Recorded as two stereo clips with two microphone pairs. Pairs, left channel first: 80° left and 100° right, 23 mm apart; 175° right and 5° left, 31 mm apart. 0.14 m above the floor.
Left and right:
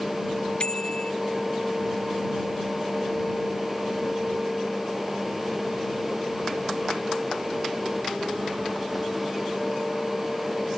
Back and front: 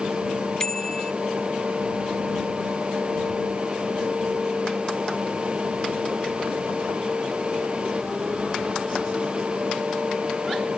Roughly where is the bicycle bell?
Behind left.